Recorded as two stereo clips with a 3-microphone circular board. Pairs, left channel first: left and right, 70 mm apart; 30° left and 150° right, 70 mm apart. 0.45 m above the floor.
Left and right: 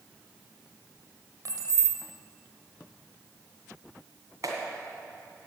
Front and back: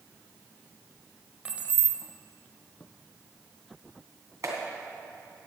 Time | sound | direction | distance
1.4 | keys jangling | 85° right | 1.4 m
4.4 | a clap | 120° right | 2.5 m